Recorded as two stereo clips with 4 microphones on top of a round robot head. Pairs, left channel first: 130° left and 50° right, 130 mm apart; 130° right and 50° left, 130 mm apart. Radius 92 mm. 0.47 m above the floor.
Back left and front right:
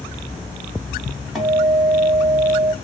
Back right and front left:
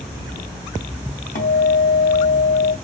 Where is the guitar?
135° right, 2.5 m.